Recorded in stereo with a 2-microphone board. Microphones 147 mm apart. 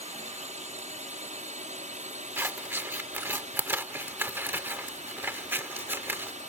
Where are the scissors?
15° right (ahead or behind).